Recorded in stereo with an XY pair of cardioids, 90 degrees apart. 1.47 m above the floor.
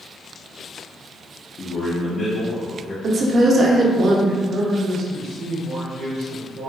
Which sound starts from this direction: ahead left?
A man speaking, at 1.6 s.